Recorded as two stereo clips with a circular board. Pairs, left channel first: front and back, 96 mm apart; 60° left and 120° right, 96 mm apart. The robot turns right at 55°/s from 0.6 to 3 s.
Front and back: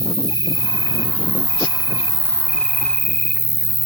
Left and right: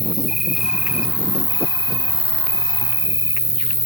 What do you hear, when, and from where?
0.0 s an insect: 150° left, 2.5 m; by 3.9 s 75° right, 2.5 m